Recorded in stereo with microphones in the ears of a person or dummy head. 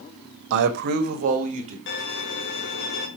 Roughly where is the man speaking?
Right.